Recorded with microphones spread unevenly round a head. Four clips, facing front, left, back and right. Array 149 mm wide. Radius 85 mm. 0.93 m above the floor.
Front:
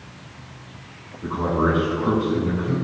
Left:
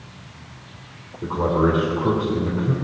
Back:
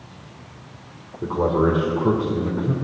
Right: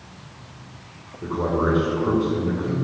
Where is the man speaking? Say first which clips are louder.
Left 3 dB, back 2 dB; 170° left, 2.5 m.